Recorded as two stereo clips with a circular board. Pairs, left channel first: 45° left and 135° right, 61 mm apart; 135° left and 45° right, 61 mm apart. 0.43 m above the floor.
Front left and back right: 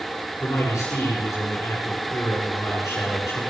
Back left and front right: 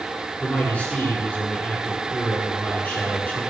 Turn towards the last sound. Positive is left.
turn(degrees=70)